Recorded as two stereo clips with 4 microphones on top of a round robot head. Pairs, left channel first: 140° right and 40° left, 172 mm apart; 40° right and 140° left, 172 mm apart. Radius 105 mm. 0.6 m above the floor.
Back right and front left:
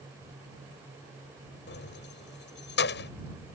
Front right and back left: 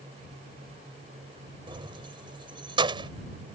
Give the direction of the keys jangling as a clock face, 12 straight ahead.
5 o'clock.